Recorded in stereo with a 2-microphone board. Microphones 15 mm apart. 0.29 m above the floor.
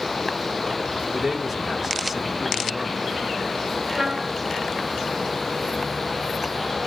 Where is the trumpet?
45° right (ahead or behind), 2 m.